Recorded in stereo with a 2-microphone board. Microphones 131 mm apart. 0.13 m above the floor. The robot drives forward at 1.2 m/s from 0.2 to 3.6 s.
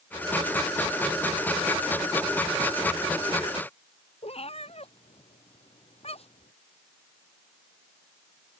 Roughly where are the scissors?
No scissors in this recording.